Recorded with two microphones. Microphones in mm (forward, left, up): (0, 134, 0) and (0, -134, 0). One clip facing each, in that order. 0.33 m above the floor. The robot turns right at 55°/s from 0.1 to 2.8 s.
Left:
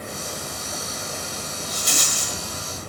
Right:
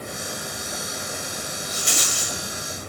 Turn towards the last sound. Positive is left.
turn(degrees=100)